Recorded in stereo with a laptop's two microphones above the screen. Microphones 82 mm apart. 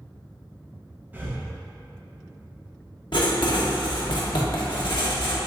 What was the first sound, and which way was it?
Breathing, 20° right (ahead or behind).